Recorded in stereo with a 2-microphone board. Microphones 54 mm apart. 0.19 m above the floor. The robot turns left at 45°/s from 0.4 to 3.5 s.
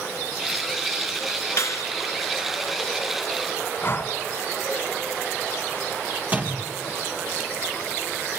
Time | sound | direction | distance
1.6 | a clap | 60° left (ahead or behind) | 2.5 m
3.8 | breathing | 40° left (ahead or behind) | 1.6 m
6.3 | a door slam | 25° right (ahead or behind) | 3.5 m